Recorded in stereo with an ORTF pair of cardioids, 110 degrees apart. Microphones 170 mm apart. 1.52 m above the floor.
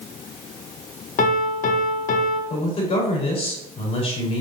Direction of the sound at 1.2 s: 55° left.